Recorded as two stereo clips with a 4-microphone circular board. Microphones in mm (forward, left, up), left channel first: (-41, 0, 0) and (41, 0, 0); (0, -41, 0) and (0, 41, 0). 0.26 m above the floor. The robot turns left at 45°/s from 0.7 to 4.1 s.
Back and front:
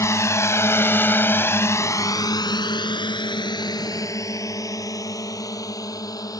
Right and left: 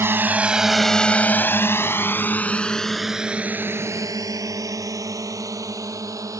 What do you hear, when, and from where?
0.0 s a drone: 140° left; by 6.4 s 135° left